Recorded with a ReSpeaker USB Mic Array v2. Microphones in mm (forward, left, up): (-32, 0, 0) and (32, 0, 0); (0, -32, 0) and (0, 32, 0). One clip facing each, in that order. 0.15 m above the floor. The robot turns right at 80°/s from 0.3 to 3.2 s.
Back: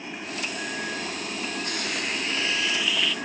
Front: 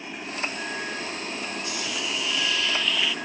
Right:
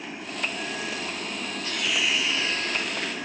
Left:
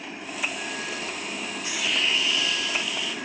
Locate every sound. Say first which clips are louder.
1.6 s a hiss: back 1 dB, even; 160° left, 1.1 m; by 3.1 s 80° right, 1.1 m